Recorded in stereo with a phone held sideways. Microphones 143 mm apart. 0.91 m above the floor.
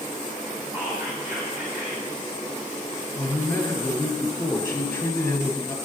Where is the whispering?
15° right (ahead or behind), 3.5 m.